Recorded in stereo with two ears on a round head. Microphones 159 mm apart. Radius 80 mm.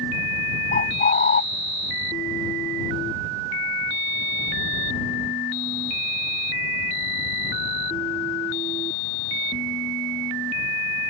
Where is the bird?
45° left (ahead or behind).